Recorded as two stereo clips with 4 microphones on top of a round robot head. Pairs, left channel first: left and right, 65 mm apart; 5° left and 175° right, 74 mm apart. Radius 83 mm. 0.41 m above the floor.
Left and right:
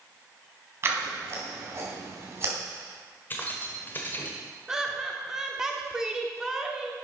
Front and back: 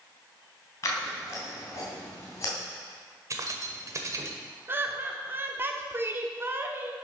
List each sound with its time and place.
0.8 s scissors: 45° right, 3 m
3.3 s keys jangling: 150° left, 1.3 m
4.7 s laughter: 160° right, 1.1 m